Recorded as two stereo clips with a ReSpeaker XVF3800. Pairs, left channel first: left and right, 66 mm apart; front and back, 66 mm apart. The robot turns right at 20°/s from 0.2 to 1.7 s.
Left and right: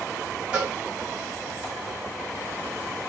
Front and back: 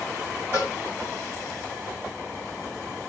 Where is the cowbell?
155° right, 1.5 m; by 0.7 s 150° right, 1.5 m.